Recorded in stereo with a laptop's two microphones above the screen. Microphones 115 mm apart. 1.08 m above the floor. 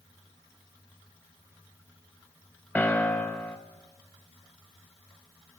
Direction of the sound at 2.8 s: 15° left (ahead or behind).